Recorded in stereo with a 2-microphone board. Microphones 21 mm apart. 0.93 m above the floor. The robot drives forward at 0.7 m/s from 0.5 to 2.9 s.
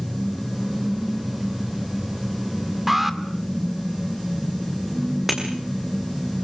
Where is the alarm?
5° right (ahead or behind), 2 m.